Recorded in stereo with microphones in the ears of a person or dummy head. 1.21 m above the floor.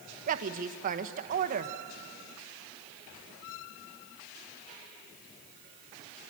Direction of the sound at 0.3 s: 45° right (ahead or behind).